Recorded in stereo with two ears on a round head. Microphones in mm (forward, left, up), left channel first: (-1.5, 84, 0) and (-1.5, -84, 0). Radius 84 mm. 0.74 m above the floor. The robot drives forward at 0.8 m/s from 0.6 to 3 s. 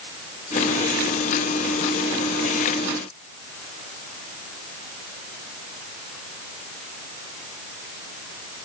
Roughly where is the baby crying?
No baby crying in this recording.